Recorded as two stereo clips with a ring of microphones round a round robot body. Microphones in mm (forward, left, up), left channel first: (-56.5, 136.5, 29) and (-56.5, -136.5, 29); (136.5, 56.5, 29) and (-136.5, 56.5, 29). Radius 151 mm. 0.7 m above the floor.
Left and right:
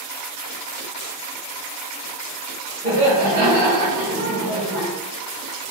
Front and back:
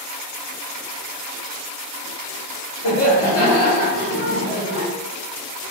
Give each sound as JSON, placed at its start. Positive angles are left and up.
{"t": 2.8, "sound": "laughter", "azimuth_deg": 30, "distance_m": 2.0}